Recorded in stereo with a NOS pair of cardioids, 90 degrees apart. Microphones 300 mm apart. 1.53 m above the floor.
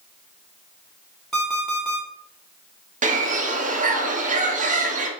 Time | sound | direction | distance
1.3 | an alarm clock | straight ahead | 2.0 m
3.0 | a bird | 25° right | 0.7 m